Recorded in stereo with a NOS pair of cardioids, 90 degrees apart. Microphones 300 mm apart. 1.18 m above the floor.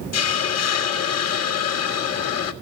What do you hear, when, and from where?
0.1 s a hiss: 55° left, 1.5 m